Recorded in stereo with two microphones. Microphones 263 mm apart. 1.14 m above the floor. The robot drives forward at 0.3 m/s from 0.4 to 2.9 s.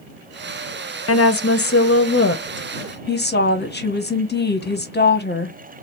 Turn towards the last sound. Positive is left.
turn(degrees=40)  # may be behind; listen again after turning